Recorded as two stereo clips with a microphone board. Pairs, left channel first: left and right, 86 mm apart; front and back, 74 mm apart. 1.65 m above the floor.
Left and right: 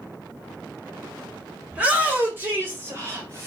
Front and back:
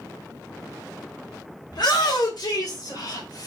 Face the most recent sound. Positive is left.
turn(degrees=-35)